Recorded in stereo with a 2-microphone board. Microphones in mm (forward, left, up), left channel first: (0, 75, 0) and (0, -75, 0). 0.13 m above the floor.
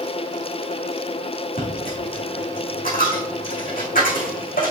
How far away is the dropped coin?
About 4 m.